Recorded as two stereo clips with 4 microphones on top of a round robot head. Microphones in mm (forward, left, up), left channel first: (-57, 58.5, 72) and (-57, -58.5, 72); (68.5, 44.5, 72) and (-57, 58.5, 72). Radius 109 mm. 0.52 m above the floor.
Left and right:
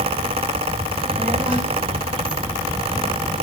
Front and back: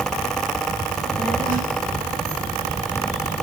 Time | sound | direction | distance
0.9 | a child speaking | 170° right | 9 m